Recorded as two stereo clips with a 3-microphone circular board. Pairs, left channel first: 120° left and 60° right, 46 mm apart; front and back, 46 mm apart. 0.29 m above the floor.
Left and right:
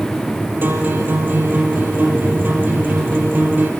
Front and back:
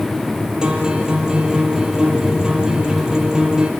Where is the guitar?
110° right, 4 m.